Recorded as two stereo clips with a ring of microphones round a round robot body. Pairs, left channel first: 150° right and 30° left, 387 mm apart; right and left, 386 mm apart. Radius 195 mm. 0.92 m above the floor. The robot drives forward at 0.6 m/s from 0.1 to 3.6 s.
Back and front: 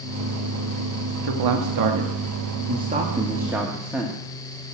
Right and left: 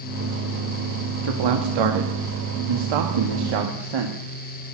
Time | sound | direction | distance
1.2 | a man speaking | 60° left | 1.5 m